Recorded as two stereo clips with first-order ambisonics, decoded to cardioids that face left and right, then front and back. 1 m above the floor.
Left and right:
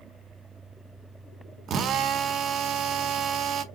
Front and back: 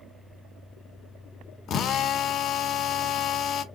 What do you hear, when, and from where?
1.7 s a drill: 45° right, 0.6 m